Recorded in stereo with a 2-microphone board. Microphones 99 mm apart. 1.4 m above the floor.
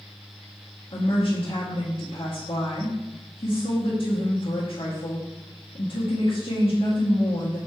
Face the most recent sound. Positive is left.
turn(degrees=70)  # may be behind; listen again after turning